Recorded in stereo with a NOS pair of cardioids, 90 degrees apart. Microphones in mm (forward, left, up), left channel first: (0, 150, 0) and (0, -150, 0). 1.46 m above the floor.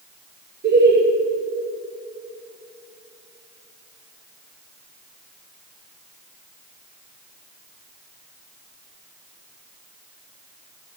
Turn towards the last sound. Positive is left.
turn(degrees=-35)